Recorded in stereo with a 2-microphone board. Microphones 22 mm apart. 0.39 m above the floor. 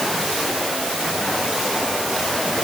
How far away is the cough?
No cough in this recording.